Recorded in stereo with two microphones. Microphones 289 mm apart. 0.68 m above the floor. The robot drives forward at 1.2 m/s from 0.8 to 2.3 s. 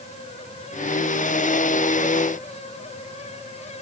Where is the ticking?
I don't hear ticking.